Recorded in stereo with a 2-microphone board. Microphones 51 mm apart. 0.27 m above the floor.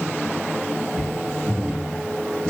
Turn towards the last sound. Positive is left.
turn(degrees=-25)  # may be behind; listen again after turning